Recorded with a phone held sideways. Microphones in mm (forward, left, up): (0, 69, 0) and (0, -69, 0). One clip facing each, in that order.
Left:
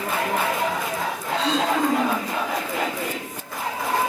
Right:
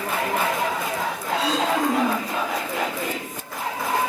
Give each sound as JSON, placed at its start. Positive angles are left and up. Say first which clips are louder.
{"t": 1.3, "sound": "throat clearing", "louder": "left 1 dB", "side_deg": -5, "distance_m": 5.5}